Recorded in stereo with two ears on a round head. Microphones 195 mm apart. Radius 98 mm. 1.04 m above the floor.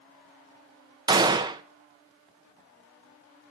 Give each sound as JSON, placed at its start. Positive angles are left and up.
{"t": 1.1, "sound": "a gunshot", "side_deg": -20, "distance_m": 0.7}